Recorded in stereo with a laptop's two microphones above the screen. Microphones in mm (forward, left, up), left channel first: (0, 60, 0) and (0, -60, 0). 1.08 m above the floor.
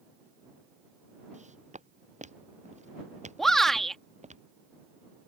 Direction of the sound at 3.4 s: Centre (ahead or behind).